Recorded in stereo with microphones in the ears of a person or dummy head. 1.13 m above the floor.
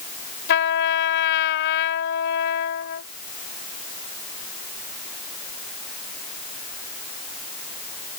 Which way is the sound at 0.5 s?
75° left (ahead or behind).